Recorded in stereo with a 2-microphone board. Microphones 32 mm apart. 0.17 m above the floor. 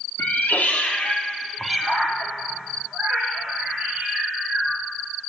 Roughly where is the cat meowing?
Left.